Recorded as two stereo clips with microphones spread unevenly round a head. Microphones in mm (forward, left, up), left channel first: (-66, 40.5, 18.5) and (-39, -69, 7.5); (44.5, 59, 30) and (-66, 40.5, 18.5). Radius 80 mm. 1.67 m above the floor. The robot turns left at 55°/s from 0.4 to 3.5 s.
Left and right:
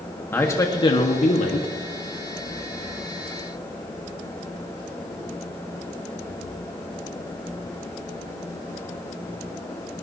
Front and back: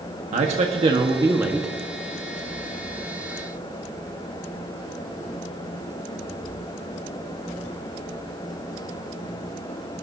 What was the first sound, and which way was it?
A man speaking, 175° left.